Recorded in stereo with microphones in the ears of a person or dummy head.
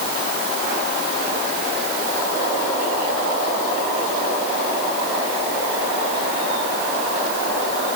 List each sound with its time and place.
Only background noise.